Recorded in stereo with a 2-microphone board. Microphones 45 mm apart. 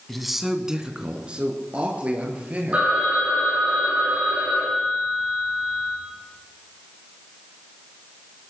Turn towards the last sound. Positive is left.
turn(degrees=-30)  # may be behind; listen again after turning